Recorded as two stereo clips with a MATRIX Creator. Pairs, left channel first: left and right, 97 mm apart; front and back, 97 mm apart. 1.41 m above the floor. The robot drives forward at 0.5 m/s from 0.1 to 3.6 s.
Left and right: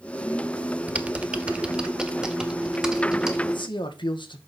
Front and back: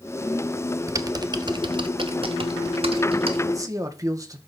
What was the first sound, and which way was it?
Typing on a keyboard, 155° right.